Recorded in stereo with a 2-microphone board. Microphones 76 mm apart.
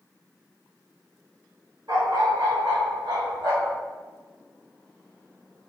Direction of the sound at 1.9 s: 75° right (ahead or behind).